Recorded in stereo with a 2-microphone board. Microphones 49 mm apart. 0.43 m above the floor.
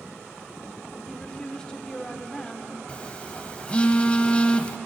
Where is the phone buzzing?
25° left (ahead or behind), 0.6 m.